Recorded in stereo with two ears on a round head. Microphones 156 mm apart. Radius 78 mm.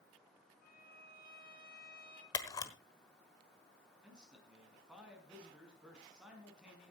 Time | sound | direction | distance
0.6 | a violin | 55° left (ahead or behind) | 2.5 m
2.3 | a camera shutter | 20° left (ahead or behind) | 1.2 m
4.0 | a man speaking | 5° right (ahead or behind) | 4.5 m